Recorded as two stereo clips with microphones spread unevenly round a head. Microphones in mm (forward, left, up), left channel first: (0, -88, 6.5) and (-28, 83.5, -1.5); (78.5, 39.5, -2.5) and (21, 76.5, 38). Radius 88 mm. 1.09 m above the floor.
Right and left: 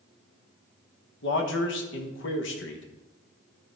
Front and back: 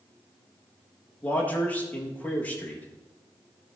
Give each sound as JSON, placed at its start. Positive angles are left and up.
{"t": 1.2, "sound": "a man speaking", "azimuth_deg": -85, "distance_m": 1.4}